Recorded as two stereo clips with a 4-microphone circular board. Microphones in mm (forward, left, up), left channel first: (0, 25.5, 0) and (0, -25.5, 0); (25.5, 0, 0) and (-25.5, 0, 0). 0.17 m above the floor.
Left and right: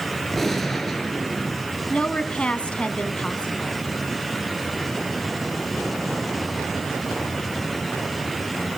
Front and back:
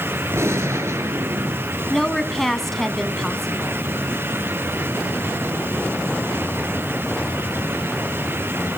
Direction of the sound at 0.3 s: 175° left.